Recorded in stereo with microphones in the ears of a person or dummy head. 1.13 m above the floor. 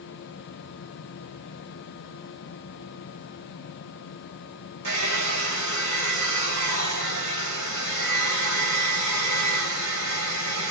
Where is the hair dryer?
60° right (ahead or behind), 7.5 m.